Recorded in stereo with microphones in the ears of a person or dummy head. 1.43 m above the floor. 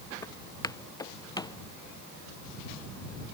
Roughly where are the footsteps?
Centre.